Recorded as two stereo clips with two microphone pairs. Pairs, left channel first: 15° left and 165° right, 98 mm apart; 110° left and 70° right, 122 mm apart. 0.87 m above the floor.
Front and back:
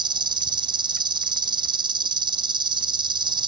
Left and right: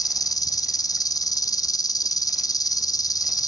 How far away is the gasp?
I don't hear a gasp.